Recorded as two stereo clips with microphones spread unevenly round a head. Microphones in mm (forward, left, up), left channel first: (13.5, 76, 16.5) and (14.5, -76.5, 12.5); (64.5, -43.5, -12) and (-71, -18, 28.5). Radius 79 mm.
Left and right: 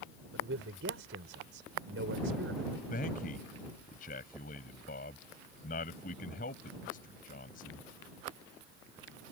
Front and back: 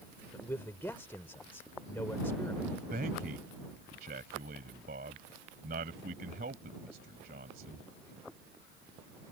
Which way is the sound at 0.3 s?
90° right.